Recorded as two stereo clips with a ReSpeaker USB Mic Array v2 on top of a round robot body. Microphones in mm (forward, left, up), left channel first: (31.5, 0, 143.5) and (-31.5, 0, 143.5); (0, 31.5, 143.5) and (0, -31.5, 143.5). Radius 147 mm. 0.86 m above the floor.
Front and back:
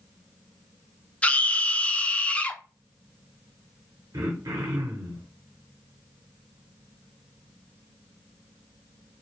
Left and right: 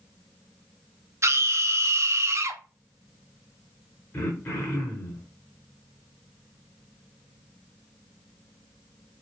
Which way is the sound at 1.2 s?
65° right.